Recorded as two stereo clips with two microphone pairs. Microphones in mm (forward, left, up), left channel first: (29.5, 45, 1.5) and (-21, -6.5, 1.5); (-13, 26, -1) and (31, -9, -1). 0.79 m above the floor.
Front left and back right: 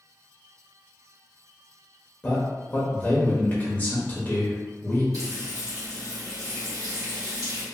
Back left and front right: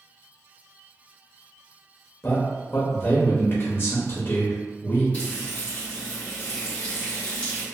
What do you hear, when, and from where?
2.2 s a man speaking: 105° left, 0.6 m
5.1 s frying: 160° right, 1.1 m